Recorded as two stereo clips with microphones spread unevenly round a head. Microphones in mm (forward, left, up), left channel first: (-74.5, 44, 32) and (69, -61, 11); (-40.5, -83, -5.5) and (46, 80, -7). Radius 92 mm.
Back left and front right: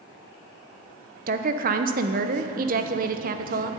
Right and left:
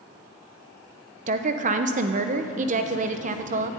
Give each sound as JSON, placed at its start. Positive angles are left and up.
{"t": 1.3, "sound": "a woman speaking", "azimuth_deg": 10, "distance_m": 0.9}